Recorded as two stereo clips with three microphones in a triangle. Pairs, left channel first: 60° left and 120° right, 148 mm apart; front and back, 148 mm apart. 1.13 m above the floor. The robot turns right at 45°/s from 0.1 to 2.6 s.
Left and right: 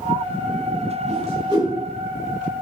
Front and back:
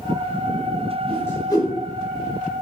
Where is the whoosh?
85° right, 3.5 m; by 1.7 s 55° right, 3.5 m.